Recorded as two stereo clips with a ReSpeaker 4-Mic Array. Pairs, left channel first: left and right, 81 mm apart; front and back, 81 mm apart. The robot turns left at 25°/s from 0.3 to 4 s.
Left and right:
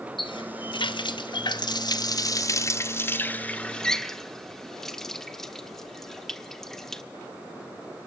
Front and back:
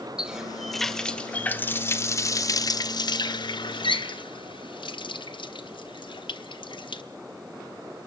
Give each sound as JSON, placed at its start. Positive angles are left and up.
{"t": 0.2, "sound": "a running tap", "azimuth_deg": 100, "distance_m": 1.4}